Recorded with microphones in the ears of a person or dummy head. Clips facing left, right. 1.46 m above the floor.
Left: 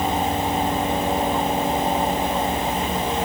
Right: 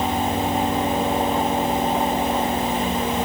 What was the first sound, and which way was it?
Only background noise.